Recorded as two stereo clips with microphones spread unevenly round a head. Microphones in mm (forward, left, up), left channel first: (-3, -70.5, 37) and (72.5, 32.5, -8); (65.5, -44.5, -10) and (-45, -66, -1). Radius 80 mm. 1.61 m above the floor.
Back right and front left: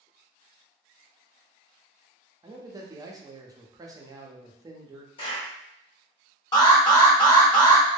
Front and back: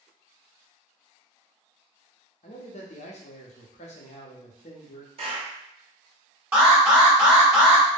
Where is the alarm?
95° right, 1.4 m.